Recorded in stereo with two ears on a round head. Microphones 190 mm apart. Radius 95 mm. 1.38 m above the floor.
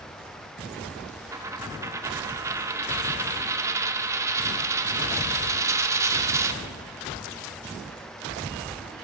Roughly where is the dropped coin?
Centre.